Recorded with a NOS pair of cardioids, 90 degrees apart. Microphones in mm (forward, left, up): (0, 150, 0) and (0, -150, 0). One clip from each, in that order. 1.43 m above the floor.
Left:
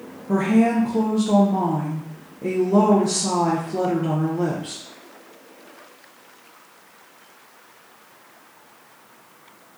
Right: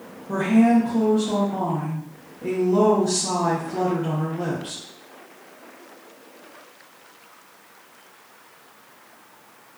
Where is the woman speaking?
15° left, 0.6 m.